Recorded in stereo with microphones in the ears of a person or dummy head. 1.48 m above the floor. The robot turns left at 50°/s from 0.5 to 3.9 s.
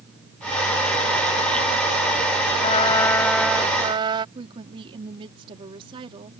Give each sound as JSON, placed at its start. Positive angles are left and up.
{"t": 2.6, "sound": "a trumpet", "azimuth_deg": 40}
{"t": 4.3, "sound": "a woman speaking", "side_deg": -25}